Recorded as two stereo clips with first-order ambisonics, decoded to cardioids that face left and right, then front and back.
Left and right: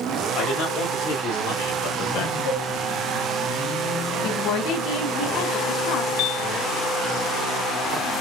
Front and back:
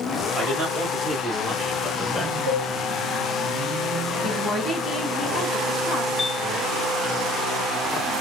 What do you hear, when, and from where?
0.3 s a man speaking: 115° left, 2 m; by 2.4 s 80° left, 1.0 m
2.5 s a cowbell: 115° left, 2 m
4.2 s a woman speaking: 70° left, 1.5 m
6.2 s a piano: 80° left, 0.6 m